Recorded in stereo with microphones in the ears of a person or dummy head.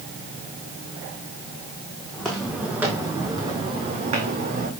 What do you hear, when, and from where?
2.1 s footsteps: centre (ahead or behind), 4 m; by 4.7 s 50° right (ahead or behind), 3.5 m